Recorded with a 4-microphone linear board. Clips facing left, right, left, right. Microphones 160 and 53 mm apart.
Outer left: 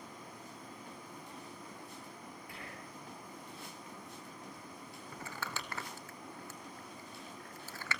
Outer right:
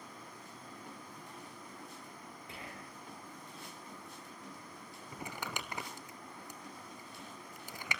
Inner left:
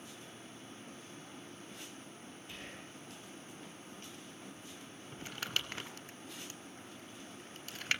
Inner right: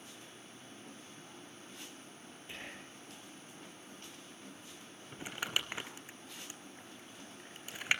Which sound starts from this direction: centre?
Crumpling, at 5.1 s.